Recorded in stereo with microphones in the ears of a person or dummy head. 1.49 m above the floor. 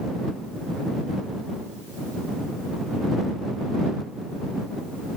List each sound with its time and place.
Only background noise.